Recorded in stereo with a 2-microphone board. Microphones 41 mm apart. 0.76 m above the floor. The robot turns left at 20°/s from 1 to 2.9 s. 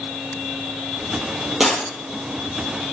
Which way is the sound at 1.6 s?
5° right (ahead or behind).